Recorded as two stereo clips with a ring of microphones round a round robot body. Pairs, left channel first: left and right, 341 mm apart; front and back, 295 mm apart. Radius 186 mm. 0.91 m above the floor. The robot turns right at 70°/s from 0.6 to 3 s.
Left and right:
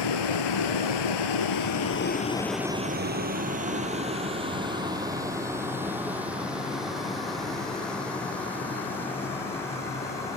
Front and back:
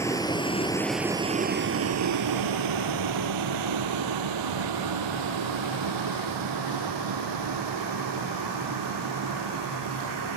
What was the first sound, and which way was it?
A vehicle, 80° left.